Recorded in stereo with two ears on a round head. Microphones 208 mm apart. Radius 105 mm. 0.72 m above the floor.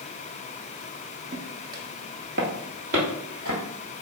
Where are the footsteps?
30° right (ahead or behind), 0.7 m; by 3.6 s 45° right (ahead or behind), 1.5 m.